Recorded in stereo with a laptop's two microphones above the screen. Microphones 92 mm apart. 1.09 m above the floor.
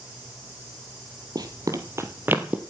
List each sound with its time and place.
1.4 s running footsteps: 45° right (ahead or behind), 1.6 m; by 2.6 s 15° right (ahead or behind), 1.6 m